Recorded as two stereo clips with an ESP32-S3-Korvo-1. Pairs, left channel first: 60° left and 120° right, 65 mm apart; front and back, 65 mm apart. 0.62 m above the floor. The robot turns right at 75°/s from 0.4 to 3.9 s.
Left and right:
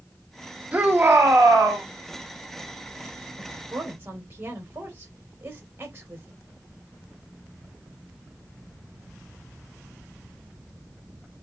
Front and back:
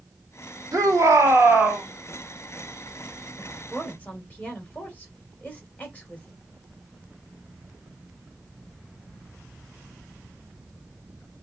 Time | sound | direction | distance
0.7 | a shout | 175° left | 2 m
3.4 | a woman speaking | 105° right | 2.5 m